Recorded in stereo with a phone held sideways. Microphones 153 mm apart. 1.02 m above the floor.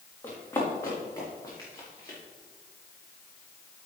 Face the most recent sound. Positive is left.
turn(degrees=25)  # may be behind; listen again after turning